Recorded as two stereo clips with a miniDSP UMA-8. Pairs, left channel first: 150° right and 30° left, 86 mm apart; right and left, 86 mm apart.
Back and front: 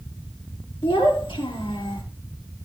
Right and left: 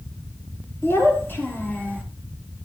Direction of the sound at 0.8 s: 155° right.